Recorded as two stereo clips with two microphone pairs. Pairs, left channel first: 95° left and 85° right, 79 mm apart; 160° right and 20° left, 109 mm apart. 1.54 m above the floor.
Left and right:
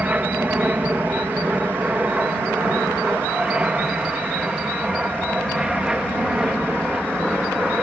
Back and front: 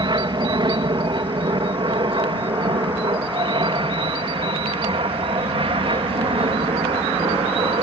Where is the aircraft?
20° right; by 7.8 s 5° right.